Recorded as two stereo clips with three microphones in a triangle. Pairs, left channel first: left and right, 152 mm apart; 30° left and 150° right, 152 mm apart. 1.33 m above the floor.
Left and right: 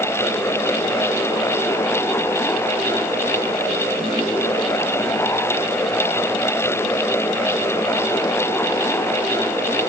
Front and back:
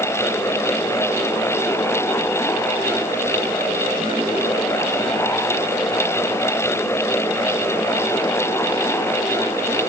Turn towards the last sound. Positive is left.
No sound to turn to.